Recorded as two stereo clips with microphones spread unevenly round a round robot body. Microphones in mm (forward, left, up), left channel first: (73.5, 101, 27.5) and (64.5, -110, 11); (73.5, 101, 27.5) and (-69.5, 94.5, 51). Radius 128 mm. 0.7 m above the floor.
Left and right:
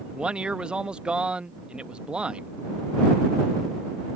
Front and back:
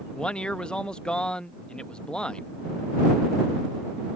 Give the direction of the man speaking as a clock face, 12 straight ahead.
1 o'clock.